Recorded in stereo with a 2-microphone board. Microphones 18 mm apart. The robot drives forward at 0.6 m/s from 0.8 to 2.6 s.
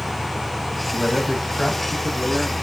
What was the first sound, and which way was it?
A man speaking, 30° left (ahead or behind).